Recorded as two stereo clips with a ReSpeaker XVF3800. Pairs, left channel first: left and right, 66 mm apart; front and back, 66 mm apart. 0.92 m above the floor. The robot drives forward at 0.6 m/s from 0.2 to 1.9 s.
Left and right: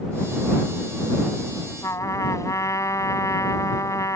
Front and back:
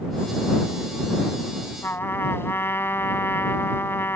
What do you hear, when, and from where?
1.8 s a trumpet: 50° left